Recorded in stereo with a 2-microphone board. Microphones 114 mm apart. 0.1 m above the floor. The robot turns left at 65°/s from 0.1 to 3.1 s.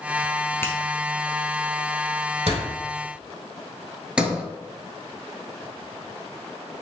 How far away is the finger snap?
About 1.3 m.